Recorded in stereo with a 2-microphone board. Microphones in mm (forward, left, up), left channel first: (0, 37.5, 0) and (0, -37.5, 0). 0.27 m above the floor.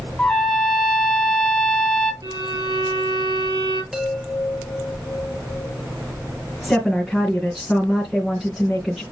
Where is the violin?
65° right (ahead or behind), 4 m.